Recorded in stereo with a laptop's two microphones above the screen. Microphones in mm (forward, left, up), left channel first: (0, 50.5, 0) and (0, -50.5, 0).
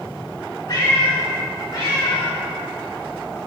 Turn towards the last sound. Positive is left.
turn(degrees=50)  # may be behind; listen again after turning